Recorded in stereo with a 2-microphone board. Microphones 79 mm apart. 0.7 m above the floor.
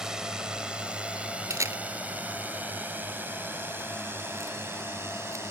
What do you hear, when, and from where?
0.0 s a drone: 10° right (ahead or behind); by 5.5 s 30° right (ahead or behind)
1.5 s a camera shutter: 40° right (ahead or behind)